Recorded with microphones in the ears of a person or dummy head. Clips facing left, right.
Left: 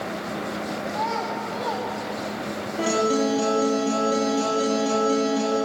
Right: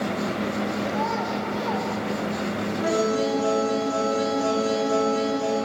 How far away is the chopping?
No chopping in this recording.